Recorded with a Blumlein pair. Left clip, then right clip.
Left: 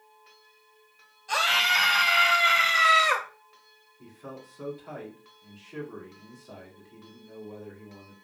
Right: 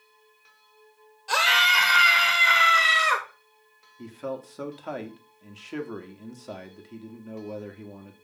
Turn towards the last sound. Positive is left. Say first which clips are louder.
# right 10 dB
turn(degrees=-35)